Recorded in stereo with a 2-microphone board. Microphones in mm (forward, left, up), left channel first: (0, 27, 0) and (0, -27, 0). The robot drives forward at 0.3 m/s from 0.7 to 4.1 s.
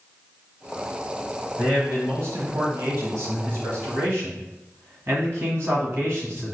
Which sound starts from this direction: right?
A man speaking, at 1.6 s.